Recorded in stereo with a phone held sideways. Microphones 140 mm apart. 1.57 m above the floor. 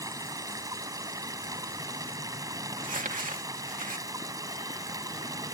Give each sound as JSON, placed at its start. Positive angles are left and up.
{"t": 0.0, "sound": "running water", "side_deg": -25}
{"t": 2.7, "sound": "crumpling", "side_deg": -80}